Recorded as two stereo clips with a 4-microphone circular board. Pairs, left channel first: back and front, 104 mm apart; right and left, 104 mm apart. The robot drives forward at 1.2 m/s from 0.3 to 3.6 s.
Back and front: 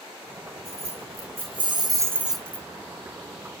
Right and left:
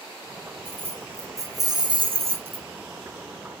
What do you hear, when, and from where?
0.7 s keys jangling: 20° left, 2 m; by 2.7 s 115° left, 0.8 m